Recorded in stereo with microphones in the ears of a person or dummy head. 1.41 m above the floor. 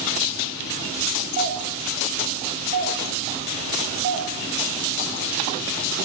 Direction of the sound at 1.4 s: 35° right (ahead or behind).